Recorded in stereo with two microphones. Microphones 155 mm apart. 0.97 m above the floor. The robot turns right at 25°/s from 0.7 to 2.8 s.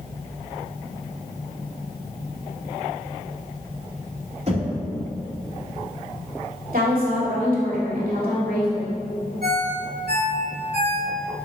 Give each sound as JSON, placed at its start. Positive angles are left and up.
{"t": 4.5, "sound": "knocking", "side_deg": -45, "distance_m": 2.0}
{"t": 6.7, "sound": "a woman speaking", "side_deg": -70, "distance_m": 2.5}
{"t": 9.4, "sound": "a ringtone", "side_deg": -80, "distance_m": 1.8}